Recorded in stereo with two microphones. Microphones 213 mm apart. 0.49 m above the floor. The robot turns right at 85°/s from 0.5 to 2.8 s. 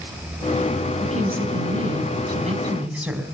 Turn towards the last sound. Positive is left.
turn(degrees=-5)